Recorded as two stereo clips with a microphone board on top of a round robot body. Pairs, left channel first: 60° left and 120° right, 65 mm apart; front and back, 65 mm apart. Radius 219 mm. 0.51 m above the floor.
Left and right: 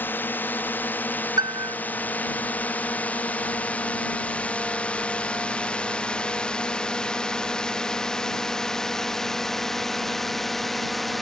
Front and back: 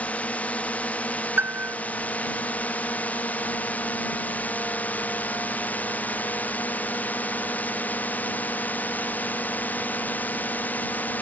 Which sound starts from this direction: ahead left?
A drone, at 0.0 s.